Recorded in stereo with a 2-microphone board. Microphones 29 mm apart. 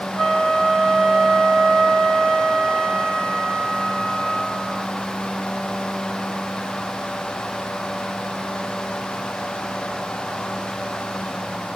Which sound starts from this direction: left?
A flute, at 0.2 s.